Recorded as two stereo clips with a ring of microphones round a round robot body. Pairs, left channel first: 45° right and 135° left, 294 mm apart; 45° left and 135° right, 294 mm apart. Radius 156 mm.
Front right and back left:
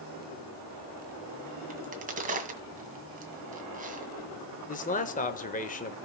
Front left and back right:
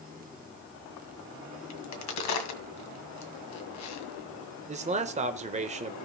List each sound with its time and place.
1.7 s a crack: 70° left, 2.0 m
4.7 s a man speaking: 85° right, 1.1 m